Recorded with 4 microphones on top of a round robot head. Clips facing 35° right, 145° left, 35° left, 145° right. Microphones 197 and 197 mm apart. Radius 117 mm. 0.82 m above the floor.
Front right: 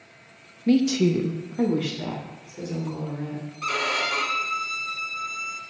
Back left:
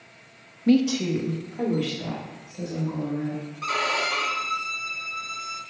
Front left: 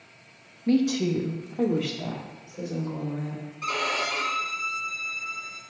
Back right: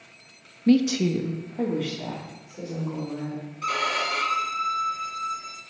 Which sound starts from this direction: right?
A violin, at 3.6 s.